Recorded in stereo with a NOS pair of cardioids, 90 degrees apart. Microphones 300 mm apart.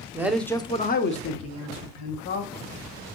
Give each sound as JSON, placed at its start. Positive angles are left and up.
{"t": 0.1, "sound": "a man speaking", "azimuth_deg": -10, "distance_m": 0.7}